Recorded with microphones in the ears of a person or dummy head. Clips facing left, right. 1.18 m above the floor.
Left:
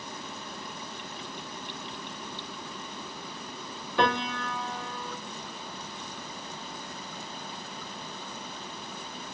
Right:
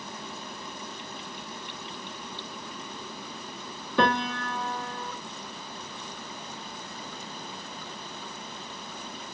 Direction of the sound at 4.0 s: 70° right (ahead or behind).